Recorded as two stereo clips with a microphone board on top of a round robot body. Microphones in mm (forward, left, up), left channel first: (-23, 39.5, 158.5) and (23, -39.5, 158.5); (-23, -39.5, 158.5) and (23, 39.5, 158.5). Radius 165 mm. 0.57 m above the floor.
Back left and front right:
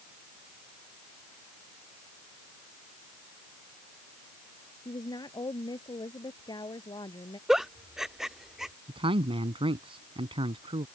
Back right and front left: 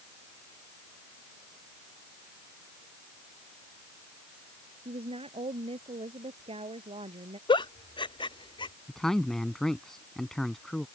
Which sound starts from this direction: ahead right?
A man speaking, at 8.9 s.